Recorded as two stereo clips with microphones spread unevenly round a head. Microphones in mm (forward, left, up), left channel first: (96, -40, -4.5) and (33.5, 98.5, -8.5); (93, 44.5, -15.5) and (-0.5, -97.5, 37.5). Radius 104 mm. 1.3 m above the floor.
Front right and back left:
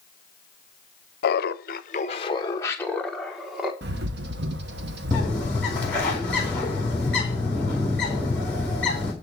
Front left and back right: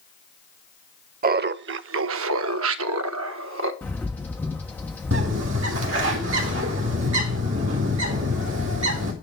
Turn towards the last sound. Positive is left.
turn(degrees=-150)